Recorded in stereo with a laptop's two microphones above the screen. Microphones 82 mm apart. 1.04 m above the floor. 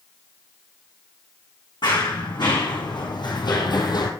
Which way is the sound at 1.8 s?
65° left (ahead or behind).